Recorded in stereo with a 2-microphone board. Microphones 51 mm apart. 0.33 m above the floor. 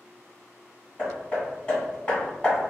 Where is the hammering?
20° left (ahead or behind), 1.6 m.